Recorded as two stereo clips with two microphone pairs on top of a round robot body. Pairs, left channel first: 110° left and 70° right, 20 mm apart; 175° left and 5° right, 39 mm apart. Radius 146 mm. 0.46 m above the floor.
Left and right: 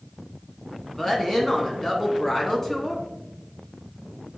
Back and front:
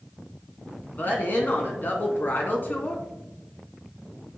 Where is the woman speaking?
175° left, 1.9 m.